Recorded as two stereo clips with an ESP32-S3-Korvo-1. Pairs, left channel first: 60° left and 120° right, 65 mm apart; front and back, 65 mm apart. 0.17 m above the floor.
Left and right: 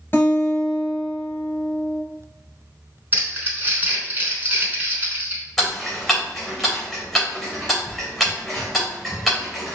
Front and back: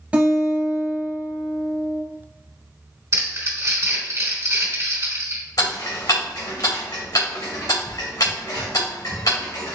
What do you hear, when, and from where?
0.1 s a guitar: 110° left, 2 m
3.1 s crumpling: 170° right, 2.5 m
5.6 s ticking: 25° right, 2.5 m